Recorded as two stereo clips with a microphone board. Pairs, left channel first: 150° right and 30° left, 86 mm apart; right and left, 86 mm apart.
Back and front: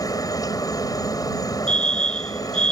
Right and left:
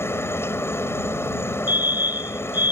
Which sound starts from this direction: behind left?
A fire alarm, at 1.7 s.